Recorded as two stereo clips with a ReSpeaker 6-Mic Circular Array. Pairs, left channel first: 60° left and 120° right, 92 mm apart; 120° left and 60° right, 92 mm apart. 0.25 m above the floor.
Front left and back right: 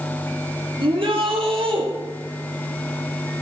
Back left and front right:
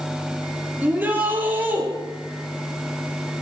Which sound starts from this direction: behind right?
A shout, at 0.8 s.